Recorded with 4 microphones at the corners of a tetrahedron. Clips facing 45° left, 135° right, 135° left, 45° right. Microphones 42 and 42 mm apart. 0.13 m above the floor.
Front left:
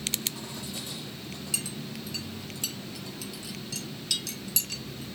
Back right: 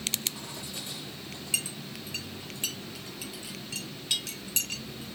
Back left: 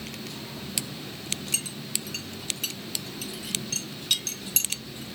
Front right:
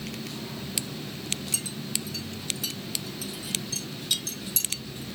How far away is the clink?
About 2 m.